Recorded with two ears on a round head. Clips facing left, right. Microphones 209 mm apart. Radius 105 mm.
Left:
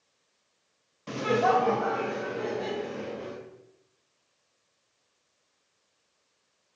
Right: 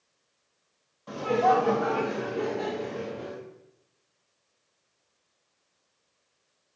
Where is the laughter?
40° left (ahead or behind), 0.8 m; by 3.3 s 60° right (ahead or behind), 2 m.